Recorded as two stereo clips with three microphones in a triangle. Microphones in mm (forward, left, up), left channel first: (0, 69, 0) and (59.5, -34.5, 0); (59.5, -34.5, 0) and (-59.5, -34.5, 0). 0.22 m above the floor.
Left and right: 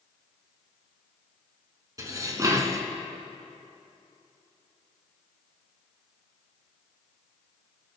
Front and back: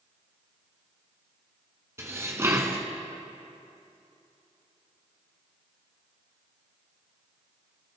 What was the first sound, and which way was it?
Dishes clattering, 115° right.